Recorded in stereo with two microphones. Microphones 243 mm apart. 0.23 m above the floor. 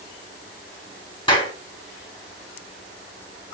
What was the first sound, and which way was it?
A clap, 20° left (ahead or behind).